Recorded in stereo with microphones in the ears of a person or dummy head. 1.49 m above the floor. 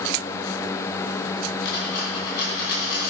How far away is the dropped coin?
About 3 m.